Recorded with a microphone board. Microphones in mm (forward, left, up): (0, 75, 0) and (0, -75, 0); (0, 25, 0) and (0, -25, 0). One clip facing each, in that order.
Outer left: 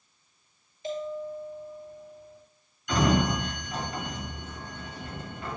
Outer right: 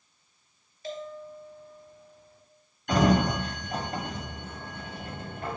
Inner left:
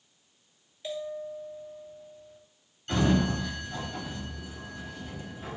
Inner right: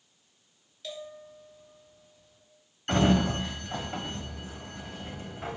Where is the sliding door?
50° right (ahead or behind), 1.3 m.